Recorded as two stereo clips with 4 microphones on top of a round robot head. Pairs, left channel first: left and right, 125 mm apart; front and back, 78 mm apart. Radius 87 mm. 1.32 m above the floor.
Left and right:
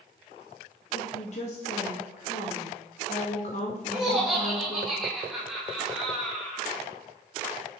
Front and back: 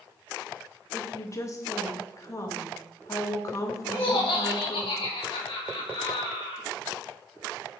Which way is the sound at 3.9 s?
5° right.